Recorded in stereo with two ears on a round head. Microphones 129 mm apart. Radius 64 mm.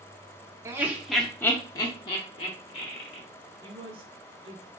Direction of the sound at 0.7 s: 20° right (ahead or behind).